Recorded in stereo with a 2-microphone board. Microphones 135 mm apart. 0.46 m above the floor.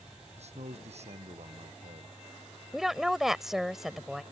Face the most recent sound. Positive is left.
turn(degrees=0)  # may be behind; listen again after turning